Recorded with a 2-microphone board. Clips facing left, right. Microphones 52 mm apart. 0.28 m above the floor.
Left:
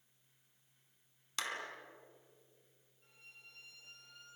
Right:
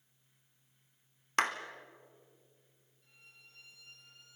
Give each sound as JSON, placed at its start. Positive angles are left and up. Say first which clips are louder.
{"t": 1.4, "sound": "a clap", "louder": "right 10 dB", "side_deg": -50, "distance_m": 1.8}
{"t": 3.0, "sound": "a violin", "louder": "left 2 dB", "side_deg": 40, "distance_m": 8.5}